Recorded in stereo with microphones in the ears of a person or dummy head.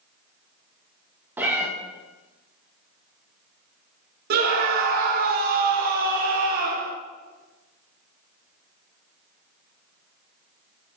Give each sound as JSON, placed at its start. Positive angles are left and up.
{"t": 1.4, "sound": "a cat meowing", "side_deg": -10, "distance_m": 0.7}
{"t": 4.3, "sound": "a scream", "side_deg": -45, "distance_m": 0.5}